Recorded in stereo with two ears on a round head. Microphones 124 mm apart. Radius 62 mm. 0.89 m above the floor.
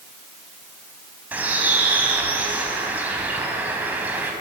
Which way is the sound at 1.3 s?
15° right (ahead or behind).